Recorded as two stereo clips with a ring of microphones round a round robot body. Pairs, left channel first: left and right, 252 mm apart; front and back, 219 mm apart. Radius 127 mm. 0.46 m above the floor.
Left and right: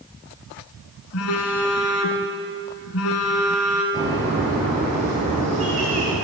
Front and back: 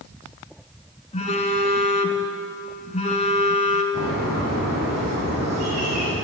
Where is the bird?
155° right, 4 m.